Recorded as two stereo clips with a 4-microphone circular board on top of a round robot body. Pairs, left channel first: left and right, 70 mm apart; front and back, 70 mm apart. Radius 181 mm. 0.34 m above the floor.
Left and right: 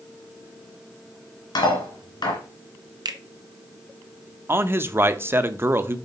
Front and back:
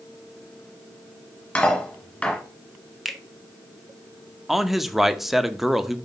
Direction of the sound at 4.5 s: 95° right.